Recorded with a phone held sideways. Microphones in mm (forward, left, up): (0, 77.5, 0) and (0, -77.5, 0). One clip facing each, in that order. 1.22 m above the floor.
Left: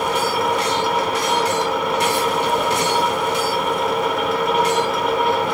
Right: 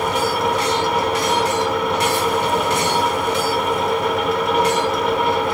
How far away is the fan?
About 2.5 m.